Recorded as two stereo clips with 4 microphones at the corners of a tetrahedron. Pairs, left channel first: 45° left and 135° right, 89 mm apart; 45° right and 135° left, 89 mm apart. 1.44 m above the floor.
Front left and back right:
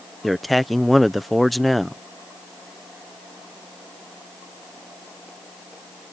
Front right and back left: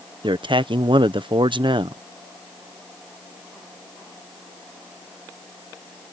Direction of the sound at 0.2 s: 135° left.